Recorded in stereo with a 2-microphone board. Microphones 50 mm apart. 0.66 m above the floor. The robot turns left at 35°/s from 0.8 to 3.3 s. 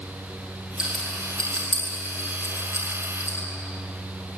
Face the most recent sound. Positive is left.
turn(degrees=80)